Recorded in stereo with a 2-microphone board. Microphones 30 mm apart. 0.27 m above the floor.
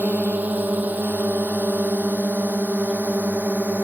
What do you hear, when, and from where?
0.0 s a drone: 80° right